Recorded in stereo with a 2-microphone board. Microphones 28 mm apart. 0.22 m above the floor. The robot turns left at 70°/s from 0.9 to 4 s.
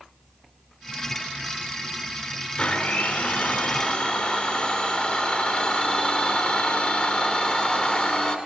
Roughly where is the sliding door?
No sliding door in this recording.